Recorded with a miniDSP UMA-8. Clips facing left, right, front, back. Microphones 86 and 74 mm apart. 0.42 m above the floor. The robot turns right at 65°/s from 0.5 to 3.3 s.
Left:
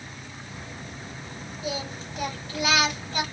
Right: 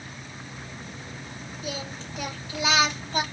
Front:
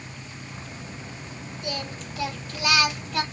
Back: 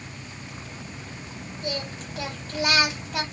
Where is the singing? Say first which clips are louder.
Left 3 dB, back 1 dB; 145° left, 1.8 m; by 3.2 s 110° right, 1.8 m.